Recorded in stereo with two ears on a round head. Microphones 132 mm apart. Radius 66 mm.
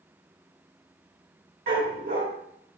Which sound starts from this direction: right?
A dog barking, at 1.7 s.